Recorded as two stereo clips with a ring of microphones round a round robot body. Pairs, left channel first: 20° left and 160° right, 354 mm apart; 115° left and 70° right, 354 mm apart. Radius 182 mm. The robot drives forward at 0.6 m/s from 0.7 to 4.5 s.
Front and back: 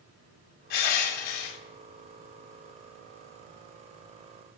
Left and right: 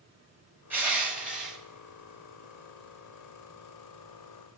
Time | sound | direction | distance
0.7 | crushing | 15° left | 3.5 m